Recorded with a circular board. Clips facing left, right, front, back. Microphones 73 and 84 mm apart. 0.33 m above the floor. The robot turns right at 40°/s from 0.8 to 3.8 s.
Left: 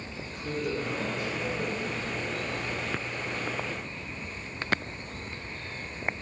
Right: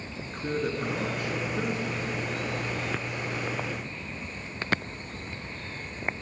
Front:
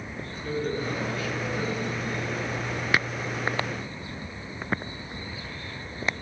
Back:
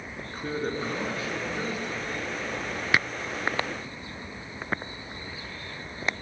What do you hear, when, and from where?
0.3 s a man speaking: 135° right, 3.5 m; by 2.5 s 70° right, 3.5 m